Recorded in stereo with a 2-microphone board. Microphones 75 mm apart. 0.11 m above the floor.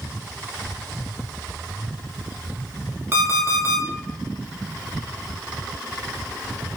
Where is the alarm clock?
30° right (ahead or behind), 0.6 m.